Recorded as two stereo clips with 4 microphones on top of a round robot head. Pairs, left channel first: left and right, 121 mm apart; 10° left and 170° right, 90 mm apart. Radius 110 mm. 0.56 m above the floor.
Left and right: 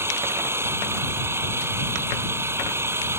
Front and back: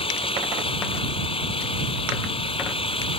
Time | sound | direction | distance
0.0 | an engine running | 20° right | ?